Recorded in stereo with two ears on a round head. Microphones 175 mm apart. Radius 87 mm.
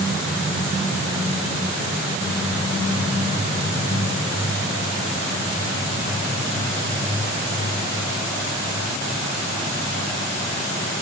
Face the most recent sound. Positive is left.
No sound to turn to.